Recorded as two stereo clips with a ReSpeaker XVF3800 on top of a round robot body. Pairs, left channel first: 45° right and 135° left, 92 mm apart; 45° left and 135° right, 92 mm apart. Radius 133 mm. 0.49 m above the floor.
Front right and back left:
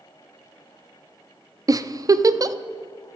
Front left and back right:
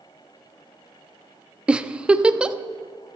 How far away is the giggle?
About 0.5 m.